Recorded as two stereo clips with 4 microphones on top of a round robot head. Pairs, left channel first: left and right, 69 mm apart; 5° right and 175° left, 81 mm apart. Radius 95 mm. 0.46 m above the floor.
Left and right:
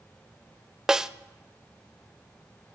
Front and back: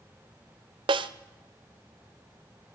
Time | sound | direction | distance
0.9 | a snare drum | 175° right | 0.5 m